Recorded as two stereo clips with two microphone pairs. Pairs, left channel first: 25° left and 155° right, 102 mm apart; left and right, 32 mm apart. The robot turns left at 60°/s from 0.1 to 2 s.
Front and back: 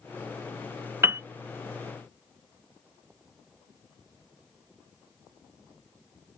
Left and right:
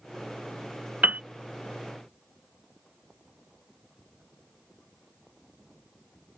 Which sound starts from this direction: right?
A piano, at 1.0 s.